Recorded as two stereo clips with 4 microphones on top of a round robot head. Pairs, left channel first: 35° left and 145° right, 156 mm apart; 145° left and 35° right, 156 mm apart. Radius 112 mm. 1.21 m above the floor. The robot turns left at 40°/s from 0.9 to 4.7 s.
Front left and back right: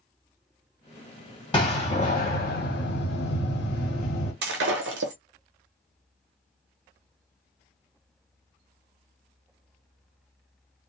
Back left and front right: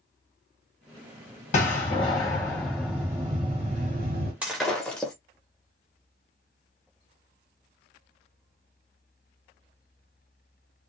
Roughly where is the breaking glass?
Behind right.